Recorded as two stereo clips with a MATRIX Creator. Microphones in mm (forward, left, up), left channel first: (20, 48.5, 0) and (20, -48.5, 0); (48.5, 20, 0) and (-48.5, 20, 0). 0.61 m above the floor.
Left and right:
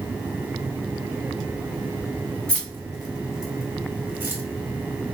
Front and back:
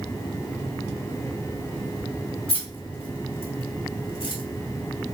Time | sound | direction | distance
2.5 | keys jangling | 10° left | 2 m